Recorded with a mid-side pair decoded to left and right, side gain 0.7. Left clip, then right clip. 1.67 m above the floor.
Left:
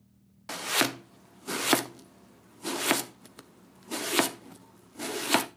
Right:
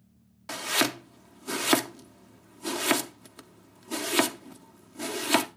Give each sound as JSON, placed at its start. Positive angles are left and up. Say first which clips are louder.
{"t": 0.5, "sound": "chopping", "louder": "right 1 dB", "azimuth_deg": 0, "distance_m": 0.8}